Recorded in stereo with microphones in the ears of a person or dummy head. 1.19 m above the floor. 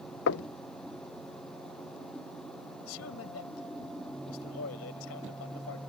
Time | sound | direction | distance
0.3 | knocking | 60° left (ahead or behind) | ?
2.8 | a man speaking | 80° left | ?